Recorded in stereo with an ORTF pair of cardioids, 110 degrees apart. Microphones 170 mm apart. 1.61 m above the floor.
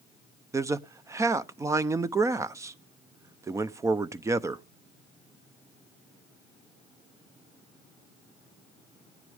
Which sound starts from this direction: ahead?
A man speaking, at 0.5 s.